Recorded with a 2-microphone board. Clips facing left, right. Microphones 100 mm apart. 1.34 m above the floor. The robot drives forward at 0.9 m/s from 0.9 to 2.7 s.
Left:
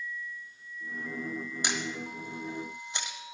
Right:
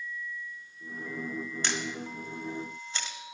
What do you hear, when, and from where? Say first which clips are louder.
1.6 s a camera shutter: left 2 dB; 15° left (ahead or behind), 1.4 m; by 3.2 s 20° left (ahead or behind), 1.2 m